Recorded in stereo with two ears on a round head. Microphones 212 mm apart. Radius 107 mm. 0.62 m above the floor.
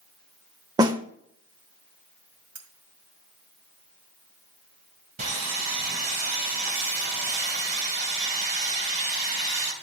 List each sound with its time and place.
0.8 s a snare drum: 15° right (ahead or behind), 0.6 m
2.5 s cutlery clinking: 65° right (ahead or behind), 2 m
5.2 s sawing: 35° right (ahead or behind), 2.5 m